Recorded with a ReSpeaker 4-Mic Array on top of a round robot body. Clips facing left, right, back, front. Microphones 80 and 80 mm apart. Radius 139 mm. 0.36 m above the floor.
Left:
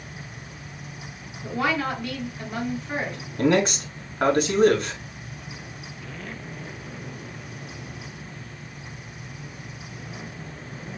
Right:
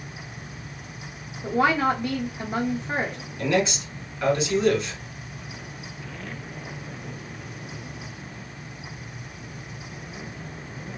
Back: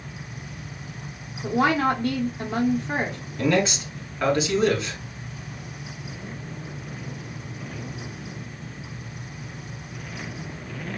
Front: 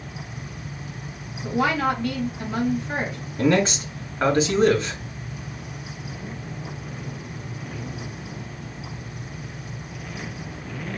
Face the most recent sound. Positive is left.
turn(degrees=55)